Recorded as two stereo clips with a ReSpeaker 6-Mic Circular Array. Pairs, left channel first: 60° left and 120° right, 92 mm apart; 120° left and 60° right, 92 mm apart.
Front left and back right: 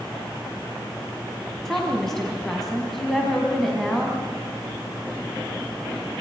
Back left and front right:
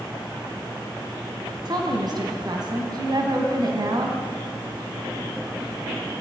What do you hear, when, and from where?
1.6 s a woman speaking: 25° right, 3 m